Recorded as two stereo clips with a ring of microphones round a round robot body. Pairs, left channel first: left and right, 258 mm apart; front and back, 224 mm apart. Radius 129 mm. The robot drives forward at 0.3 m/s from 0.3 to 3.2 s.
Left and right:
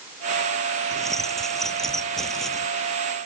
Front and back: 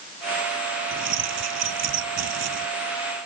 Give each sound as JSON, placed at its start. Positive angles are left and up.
{"t": 0.9, "sound": "keys jangling", "azimuth_deg": 180}